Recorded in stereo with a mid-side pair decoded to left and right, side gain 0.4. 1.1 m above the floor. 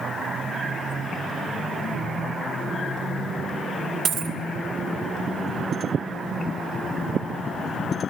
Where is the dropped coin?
60° right, 2 m.